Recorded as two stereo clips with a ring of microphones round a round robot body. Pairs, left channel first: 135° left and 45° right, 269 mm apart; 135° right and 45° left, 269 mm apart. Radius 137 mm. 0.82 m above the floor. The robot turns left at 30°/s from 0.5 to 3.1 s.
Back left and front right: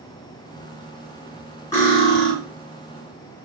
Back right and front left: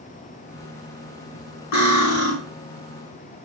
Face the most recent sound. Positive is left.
turn(degrees=170)